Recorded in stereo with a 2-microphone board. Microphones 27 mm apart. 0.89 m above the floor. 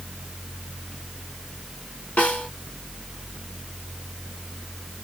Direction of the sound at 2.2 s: 80° left.